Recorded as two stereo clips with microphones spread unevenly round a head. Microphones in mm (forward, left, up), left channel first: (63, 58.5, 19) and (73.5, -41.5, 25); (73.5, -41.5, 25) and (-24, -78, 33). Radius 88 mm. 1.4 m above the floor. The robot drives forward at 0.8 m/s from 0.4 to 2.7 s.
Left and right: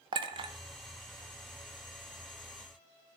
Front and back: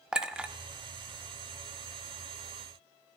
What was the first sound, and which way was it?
A clink, 85° right.